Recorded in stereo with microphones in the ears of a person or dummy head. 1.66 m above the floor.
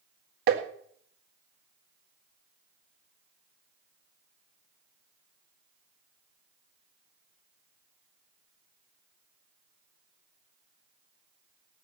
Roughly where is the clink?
No clink in this recording.